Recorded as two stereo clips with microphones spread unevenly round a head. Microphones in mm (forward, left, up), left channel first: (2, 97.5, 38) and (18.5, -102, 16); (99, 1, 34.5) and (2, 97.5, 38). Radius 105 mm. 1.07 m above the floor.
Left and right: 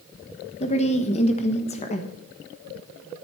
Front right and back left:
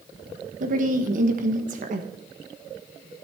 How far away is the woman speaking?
About 1.2 m.